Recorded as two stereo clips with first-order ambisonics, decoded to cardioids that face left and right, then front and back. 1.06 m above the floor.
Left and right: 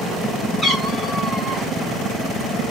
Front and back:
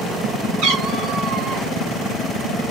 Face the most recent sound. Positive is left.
turn(degrees=-110)